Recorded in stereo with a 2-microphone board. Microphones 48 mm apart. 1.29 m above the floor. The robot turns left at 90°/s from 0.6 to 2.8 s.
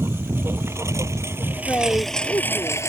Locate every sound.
0.0 s a lawn mower: 55° right (ahead or behind); by 2.9 s 70° left (ahead or behind)
1.7 s a man speaking: 145° left; by 2.8 s 45° left